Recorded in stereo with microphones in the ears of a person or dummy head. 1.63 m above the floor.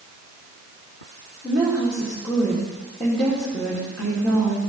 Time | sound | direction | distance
1.4 | a woman speaking | 10° left (ahead or behind) | 3.5 m